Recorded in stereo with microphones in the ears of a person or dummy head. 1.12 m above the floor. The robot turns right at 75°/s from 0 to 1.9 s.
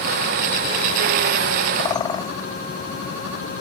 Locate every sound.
1.8 s a bird: 30° left (ahead or behind), 0.9 m; by 2.3 s 20° left (ahead or behind), 0.9 m